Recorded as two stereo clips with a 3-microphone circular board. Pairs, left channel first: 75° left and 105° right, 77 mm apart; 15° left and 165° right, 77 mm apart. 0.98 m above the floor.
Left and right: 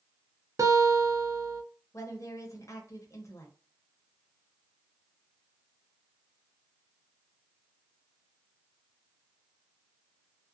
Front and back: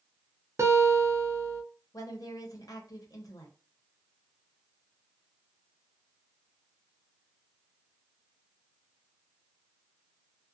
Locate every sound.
0.6 s a guitar: 130° right, 0.6 m
1.9 s a woman speaking: 40° left, 0.9 m